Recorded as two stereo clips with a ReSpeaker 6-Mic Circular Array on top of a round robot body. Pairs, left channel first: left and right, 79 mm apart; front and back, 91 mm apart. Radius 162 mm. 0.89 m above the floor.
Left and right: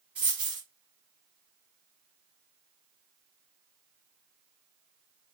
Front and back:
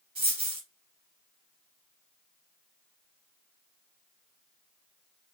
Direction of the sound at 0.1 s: 165° right.